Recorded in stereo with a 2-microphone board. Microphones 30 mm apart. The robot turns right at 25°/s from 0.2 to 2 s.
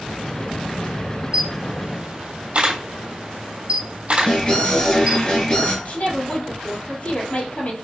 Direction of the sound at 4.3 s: 30° left (ahead or behind).